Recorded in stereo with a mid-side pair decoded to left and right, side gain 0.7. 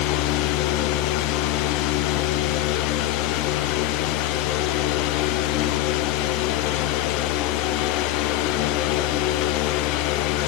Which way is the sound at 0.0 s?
65° left.